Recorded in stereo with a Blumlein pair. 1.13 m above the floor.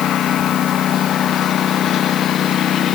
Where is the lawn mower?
30° left.